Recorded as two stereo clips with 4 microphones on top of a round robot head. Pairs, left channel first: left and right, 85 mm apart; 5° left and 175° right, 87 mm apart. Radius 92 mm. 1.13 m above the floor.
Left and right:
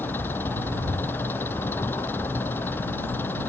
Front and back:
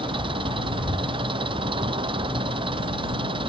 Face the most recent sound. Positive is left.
turn(degrees=160)